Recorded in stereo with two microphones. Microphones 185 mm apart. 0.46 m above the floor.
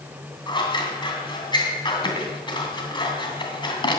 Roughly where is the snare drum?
I don't hear a snare drum.